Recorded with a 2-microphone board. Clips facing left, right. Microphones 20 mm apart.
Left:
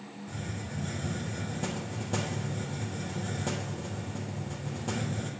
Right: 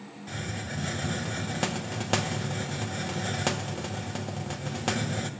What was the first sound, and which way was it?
A hiss, 60° right (ahead or behind).